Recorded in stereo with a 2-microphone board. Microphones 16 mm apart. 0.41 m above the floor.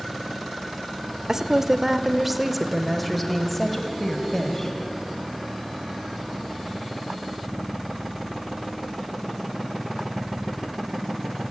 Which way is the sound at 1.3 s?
30° right (ahead or behind).